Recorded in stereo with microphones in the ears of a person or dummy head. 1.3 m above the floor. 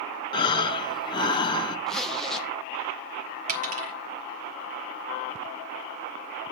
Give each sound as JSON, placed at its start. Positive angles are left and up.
{"t": 0.3, "sound": "breathing", "side_deg": 20, "distance_m": 0.7}
{"t": 1.9, "sound": "a zipper", "side_deg": 0, "distance_m": 0.5}
{"t": 3.5, "sound": "a dropped coin", "side_deg": -45, "distance_m": 1.3}